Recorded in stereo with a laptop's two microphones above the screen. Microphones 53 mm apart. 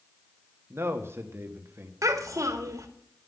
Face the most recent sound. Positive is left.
turn(degrees=-80)